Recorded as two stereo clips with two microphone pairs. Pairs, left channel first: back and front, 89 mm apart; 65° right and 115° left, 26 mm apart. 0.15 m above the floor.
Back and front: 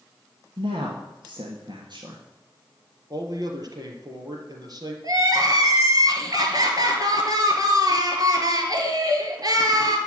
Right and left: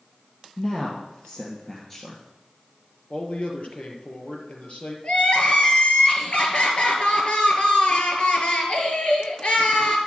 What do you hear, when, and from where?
0.6 s a woman speaking: 10° right, 3 m; by 2.2 s 10° left, 2 m
3.1 s a man speaking: 35° right, 3 m
5.0 s crying: 35° right, 2.5 m